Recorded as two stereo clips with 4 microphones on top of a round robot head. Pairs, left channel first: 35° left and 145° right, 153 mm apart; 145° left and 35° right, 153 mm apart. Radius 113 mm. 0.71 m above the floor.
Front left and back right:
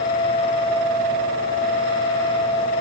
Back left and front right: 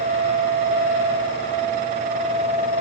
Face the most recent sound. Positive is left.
No sound to turn to.